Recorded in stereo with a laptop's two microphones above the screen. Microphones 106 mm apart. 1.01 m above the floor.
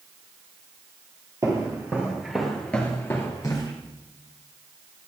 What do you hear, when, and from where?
1.4 s footsteps: 30° right (ahead or behind), 1.5 m; by 3.7 s 40° left (ahead or behind), 1.6 m